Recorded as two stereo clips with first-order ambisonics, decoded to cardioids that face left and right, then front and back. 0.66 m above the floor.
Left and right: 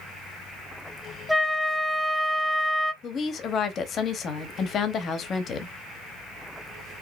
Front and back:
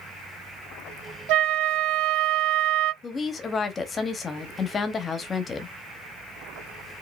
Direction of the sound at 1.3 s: 175° right.